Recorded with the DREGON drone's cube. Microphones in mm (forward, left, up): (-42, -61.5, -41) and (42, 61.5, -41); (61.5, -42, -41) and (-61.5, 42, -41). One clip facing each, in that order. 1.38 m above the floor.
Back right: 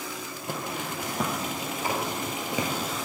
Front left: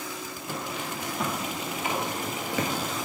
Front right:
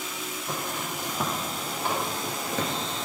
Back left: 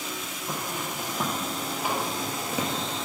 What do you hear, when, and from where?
0.5 s footsteps: 130° right, 2.5 m; by 3.1 s 140° left, 1.3 m